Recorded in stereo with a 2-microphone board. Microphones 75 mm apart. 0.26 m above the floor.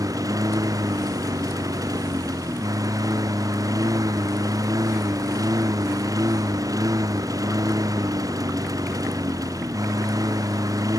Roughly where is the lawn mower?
Right.